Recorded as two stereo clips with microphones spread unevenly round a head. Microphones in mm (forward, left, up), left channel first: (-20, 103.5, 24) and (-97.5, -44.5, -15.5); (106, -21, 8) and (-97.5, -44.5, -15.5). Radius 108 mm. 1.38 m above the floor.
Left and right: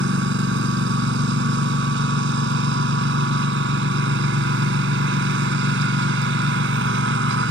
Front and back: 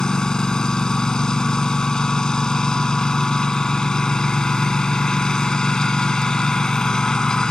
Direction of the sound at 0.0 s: 75° right.